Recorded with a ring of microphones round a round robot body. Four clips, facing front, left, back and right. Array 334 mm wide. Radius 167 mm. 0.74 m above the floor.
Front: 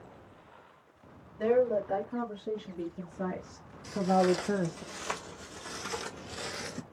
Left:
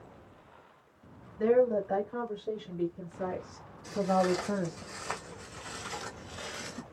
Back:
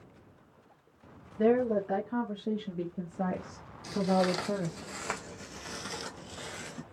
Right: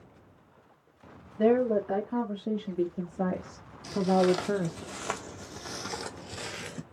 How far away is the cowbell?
No cowbell in this recording.